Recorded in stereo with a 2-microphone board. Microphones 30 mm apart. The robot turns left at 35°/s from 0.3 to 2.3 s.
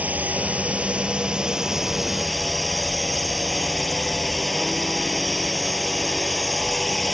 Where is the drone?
115° right; by 7.1 s 175° left.